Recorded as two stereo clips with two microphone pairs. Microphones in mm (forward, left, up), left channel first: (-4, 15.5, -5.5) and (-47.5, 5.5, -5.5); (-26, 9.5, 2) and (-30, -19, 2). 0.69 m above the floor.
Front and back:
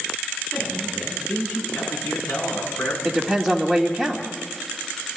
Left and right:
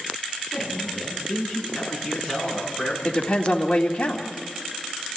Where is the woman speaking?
95° left, 1.9 m.